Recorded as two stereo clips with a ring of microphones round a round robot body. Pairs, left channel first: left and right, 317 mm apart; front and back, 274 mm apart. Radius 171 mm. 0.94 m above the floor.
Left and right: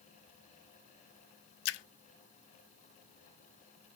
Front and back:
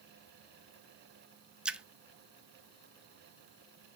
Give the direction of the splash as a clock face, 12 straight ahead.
9 o'clock.